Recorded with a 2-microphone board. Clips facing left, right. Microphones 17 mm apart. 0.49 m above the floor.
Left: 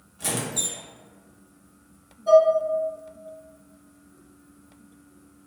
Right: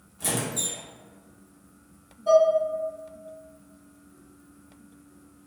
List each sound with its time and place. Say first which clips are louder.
0.2 s a squeak: left 1 dB; 20° left (ahead or behind), 0.6 m
2.3 s dishes clattering: left 3 dB; 30° right (ahead or behind), 1.0 m